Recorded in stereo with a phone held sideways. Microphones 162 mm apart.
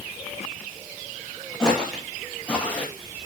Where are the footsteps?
5° left (ahead or behind), 5.5 m; by 2.9 s 10° left (ahead or behind), 4 m.